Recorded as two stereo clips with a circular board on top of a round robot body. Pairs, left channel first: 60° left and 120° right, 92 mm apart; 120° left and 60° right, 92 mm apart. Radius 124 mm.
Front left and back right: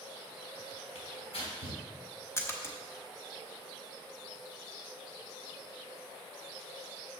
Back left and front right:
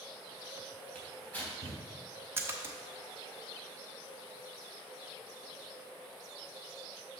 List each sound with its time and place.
0.9 s tearing paper: 50° left, 3 m
2.4 s a splash: straight ahead, 1.0 m